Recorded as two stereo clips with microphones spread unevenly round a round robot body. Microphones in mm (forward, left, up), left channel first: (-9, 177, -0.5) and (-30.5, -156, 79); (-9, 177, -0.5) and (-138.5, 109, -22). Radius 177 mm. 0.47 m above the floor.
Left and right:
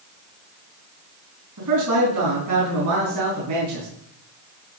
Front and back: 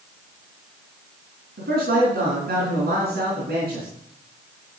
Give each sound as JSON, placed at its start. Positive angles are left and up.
{"t": 1.6, "sound": "a man speaking", "azimuth_deg": -135, "distance_m": 4.0}